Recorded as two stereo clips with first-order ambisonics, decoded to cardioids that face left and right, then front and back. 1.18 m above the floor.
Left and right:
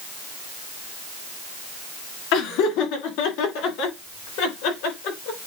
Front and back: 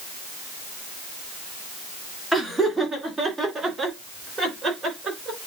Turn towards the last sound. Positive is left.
turn(degrees=105)